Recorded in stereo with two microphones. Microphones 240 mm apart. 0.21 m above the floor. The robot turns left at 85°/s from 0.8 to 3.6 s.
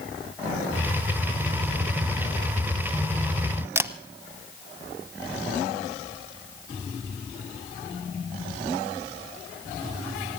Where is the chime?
I don't hear a chime.